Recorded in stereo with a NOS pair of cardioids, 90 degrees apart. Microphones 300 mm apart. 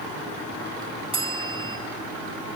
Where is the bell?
15° right, 3 m.